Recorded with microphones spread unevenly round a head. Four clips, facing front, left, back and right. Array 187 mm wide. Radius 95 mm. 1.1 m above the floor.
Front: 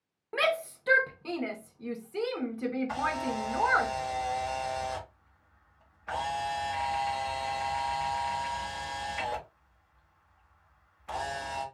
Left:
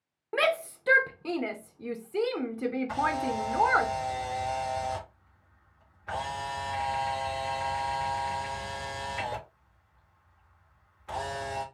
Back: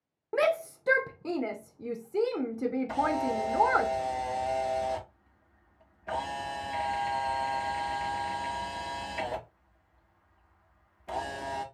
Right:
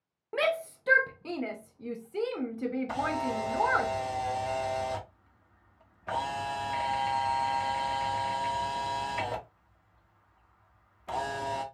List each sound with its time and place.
0.3 s a shout: 150° left, 0.7 m
2.9 s a camera shutter: 135° right, 1.6 m